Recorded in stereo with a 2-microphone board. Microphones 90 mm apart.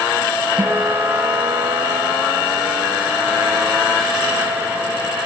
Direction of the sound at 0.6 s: 65° right (ahead or behind).